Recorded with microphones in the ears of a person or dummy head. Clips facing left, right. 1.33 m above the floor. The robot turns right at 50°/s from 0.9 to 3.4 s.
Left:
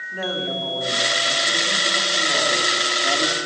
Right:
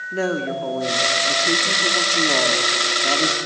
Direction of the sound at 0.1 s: 135° right.